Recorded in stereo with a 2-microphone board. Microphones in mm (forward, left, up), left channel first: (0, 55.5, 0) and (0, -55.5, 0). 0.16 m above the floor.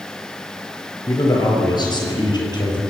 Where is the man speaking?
35° left (ahead or behind), 3 m; by 2.8 s 40° left (ahead or behind), 5 m.